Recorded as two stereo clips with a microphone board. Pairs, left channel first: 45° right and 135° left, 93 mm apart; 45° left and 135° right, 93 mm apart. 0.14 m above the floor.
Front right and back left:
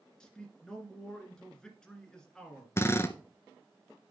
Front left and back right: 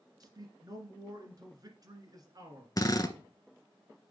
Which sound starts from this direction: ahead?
A drill, at 2.8 s.